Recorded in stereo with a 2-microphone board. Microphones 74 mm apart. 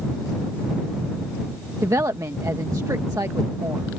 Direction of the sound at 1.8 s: 50° right (ahead or behind).